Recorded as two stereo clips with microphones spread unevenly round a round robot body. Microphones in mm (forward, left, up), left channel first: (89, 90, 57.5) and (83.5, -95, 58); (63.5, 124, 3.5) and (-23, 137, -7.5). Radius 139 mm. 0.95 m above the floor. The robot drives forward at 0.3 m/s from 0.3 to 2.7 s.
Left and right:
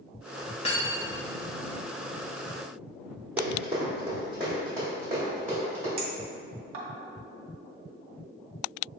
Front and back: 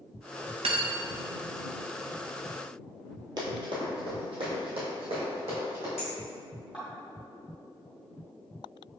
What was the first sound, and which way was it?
Cutlery clinking, 155° left.